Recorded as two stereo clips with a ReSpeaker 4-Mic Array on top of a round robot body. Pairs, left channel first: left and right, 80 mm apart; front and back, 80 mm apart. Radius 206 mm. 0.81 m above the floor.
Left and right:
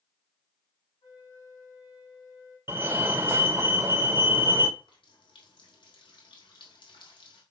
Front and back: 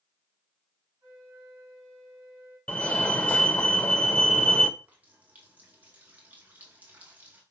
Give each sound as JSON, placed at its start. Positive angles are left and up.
{"t": 1.0, "sound": "a flute", "azimuth_deg": 120, "distance_m": 6.0}
{"t": 2.7, "sound": "a fire alarm", "azimuth_deg": -55, "distance_m": 1.5}
{"t": 4.8, "sound": "a running tap", "azimuth_deg": 110, "distance_m": 2.5}